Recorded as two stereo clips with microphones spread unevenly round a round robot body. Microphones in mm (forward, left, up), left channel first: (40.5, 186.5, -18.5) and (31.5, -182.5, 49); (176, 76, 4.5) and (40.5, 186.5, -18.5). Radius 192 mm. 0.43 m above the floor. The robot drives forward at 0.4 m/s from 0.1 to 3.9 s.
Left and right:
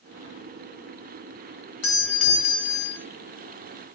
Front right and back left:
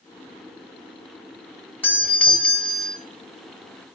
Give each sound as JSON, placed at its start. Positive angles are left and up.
{"t": 1.8, "sound": "a doorbell", "azimuth_deg": 45, "distance_m": 3.5}